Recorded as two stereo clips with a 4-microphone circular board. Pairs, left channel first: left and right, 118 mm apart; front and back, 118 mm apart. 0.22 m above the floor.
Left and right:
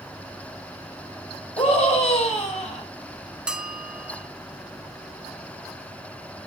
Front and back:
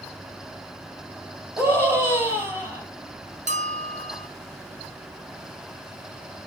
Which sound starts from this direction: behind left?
A scream, at 1.6 s.